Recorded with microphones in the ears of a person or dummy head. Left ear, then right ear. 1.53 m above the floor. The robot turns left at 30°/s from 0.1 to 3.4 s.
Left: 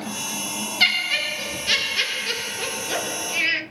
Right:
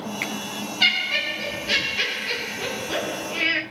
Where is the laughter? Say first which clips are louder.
Even; 105° left, 0.9 m; by 3.6 s 30° left, 0.9 m.